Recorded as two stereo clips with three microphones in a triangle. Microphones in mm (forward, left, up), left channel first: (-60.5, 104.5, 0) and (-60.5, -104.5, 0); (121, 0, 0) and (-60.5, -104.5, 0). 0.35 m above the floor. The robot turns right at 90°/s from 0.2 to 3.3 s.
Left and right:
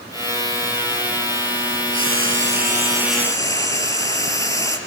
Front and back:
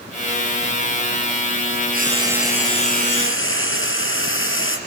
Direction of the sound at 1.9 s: 110° right.